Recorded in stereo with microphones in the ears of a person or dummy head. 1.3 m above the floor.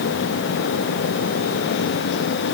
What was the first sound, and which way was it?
Only background noise.